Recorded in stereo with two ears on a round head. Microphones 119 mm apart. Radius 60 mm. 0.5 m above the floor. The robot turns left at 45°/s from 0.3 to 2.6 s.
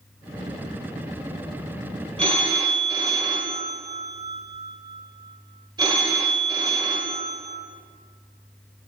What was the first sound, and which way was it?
A phone ringing, 50° right (ahead or behind).